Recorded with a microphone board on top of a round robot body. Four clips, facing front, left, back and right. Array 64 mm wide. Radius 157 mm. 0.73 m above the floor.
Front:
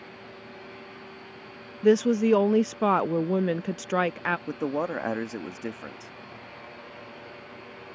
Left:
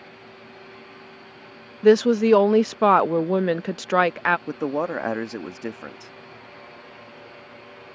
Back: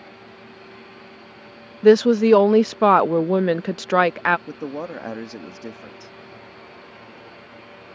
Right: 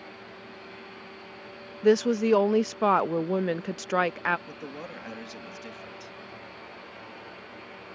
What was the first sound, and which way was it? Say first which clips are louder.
A woman speaking: left 6 dB, back 7 dB; 145° left.